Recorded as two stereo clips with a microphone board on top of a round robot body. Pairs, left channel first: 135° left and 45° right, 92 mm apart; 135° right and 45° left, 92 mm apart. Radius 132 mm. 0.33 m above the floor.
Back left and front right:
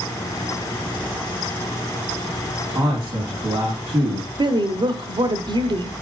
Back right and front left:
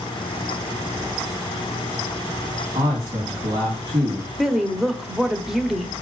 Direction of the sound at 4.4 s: 40° right.